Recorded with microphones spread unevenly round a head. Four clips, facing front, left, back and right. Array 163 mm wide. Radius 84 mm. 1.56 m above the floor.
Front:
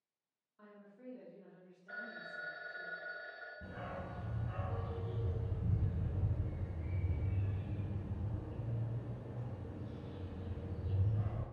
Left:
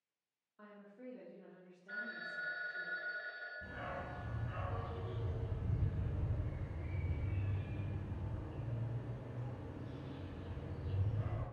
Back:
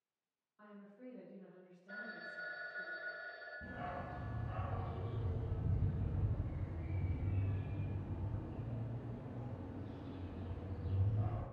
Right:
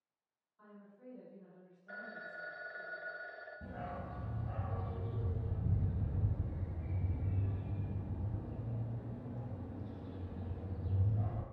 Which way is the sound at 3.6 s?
85° right.